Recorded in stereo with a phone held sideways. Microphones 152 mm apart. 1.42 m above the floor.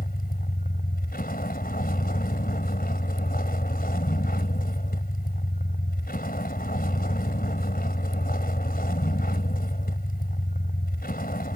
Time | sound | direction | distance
0.0 | a vehicle | 75° left (ahead or behind) | ?